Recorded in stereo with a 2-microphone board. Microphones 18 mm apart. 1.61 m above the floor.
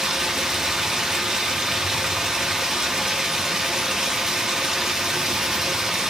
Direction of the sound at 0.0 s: 40° right (ahead or behind).